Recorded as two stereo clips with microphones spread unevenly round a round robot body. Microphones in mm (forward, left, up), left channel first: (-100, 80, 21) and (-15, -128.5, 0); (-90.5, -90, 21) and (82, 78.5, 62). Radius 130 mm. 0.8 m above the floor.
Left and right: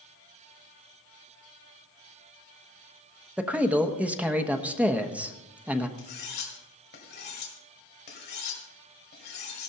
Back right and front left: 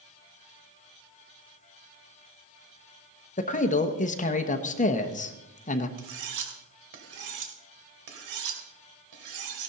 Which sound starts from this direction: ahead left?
Cutlery clinking, at 6.0 s.